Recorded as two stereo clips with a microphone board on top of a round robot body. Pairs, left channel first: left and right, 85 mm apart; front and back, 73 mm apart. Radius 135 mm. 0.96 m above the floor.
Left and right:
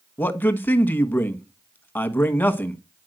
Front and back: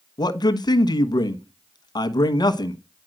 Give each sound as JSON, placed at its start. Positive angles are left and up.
{"t": 0.2, "sound": "a man speaking", "azimuth_deg": 20, "distance_m": 1.3}